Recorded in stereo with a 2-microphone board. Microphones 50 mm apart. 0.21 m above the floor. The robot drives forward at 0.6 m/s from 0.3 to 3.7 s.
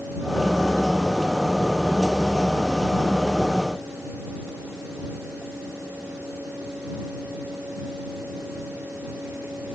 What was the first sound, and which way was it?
Only background noise.